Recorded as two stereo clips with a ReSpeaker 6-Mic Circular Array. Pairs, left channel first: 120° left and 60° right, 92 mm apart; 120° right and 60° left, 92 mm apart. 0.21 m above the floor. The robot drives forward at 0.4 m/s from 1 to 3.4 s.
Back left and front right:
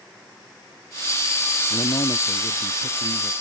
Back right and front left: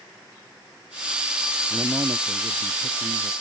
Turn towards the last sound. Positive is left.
turn(degrees=120)